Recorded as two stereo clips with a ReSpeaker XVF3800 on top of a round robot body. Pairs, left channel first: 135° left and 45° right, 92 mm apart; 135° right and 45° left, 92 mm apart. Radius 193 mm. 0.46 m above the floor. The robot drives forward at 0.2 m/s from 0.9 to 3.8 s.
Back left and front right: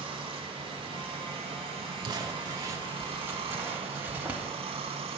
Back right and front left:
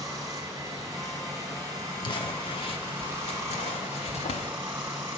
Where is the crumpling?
90° right, 0.6 m; by 4.5 s 120° right, 0.7 m.